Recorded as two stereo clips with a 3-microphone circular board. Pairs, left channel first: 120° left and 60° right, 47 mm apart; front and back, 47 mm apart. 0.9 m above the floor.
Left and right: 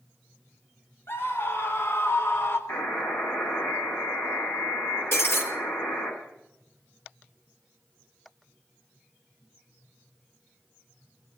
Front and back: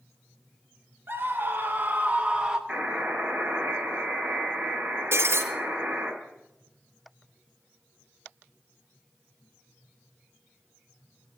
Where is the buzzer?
105° left, 6 m.